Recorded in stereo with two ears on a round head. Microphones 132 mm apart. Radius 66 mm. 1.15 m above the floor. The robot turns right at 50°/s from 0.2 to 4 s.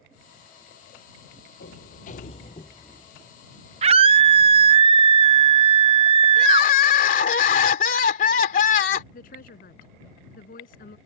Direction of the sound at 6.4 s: 55° left (ahead or behind).